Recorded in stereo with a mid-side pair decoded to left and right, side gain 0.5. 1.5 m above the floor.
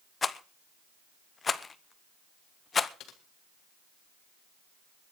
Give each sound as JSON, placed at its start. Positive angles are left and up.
{"t": 0.2, "sound": "a rattle", "azimuth_deg": 35, "distance_m": 1.1}
{"t": 3.0, "sound": "typing on a keyboard", "azimuth_deg": 70, "distance_m": 2.5}